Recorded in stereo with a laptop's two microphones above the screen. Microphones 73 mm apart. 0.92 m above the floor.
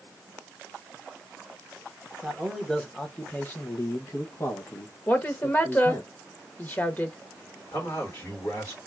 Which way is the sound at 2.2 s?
Centre (ahead or behind).